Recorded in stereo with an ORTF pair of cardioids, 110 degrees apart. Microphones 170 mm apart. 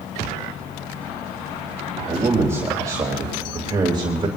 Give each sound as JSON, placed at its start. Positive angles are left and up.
{"t": 2.0, "sound": "a man speaking", "azimuth_deg": -15, "distance_m": 3.5}